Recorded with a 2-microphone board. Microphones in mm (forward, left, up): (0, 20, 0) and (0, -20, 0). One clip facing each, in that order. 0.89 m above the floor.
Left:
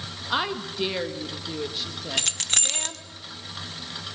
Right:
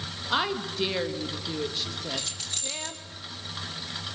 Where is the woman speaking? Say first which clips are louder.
Even; 5° left (ahead or behind), 1.1 m.